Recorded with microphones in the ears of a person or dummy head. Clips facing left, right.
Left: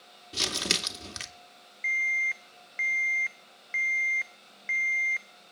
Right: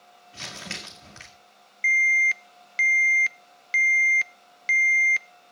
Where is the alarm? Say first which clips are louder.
Right 7 dB; 45° right (ahead or behind), 0.5 m.